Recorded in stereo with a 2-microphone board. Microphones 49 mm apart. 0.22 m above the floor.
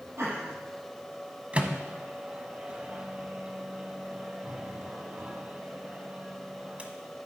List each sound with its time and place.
0.2 s laughter: 75° right (ahead or behind), 5.5 m
1.5 s a microwave: 25° right (ahead or behind), 1.1 m